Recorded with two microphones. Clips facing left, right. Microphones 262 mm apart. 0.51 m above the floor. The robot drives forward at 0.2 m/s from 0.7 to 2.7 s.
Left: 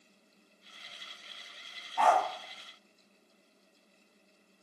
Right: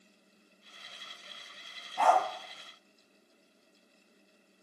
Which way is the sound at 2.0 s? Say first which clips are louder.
Right 1 dB; 30° right (ahead or behind).